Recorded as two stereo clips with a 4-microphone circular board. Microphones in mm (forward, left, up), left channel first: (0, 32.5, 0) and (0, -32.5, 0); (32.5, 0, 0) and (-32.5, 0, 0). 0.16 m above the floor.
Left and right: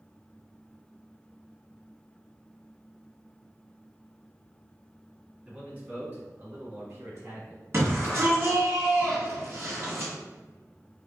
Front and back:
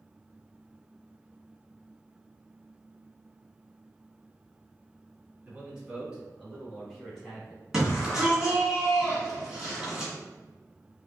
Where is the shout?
105° right, 2.0 m.